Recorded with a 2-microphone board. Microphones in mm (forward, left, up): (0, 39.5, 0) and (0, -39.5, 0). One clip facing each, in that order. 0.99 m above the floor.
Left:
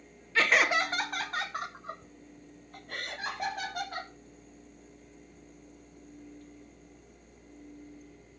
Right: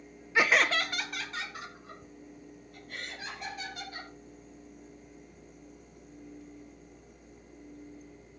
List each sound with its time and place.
0.3 s laughter: 20° right (ahead or behind), 0.5 m; by 4.1 s 70° left (ahead or behind), 3.5 m